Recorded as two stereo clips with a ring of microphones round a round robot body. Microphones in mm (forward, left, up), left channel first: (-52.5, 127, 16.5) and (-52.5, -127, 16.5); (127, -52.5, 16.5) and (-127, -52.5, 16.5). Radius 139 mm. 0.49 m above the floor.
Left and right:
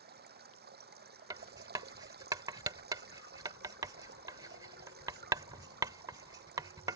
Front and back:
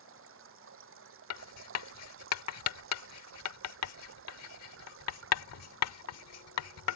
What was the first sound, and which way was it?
Running water, 140° right.